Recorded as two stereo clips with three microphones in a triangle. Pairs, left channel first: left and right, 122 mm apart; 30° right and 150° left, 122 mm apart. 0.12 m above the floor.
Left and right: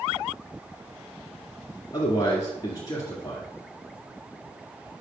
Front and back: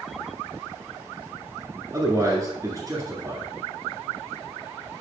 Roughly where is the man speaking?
Left.